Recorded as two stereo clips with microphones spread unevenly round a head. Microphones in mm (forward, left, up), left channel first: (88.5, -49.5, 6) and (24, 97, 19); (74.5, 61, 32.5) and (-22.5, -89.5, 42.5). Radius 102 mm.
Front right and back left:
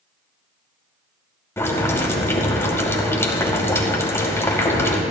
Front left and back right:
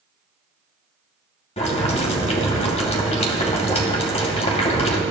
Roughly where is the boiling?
Ahead.